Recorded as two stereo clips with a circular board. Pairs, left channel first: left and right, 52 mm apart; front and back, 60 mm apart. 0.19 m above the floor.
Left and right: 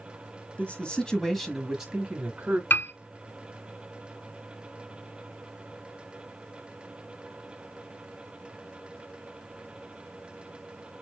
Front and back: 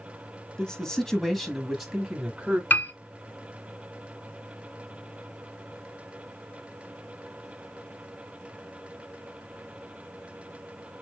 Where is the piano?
50° left, 0.9 m.